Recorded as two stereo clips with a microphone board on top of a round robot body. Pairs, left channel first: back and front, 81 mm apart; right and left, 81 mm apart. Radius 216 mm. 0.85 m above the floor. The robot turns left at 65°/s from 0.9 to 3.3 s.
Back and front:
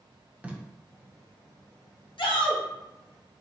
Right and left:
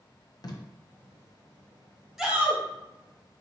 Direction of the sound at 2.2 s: 175° left.